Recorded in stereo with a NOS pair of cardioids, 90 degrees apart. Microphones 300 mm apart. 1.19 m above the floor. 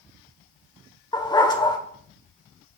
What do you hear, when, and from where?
1.1 s a dog barking: 15° left, 1.9 m